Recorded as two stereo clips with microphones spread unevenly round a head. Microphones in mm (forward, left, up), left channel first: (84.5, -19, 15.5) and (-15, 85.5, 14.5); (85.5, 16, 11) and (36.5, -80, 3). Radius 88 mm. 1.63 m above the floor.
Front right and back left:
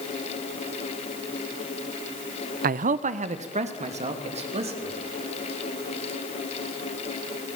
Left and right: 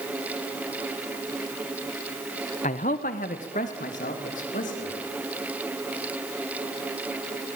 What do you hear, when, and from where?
2.6 s a man speaking: 110° left, 0.7 m; by 4.9 s 90° left, 4 m